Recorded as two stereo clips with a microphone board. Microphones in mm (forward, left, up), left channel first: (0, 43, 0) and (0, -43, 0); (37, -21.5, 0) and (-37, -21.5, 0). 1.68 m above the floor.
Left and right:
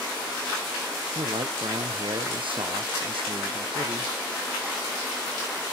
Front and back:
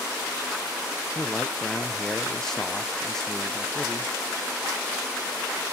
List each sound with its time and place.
1.1 s a man speaking: 80° right, 1.0 m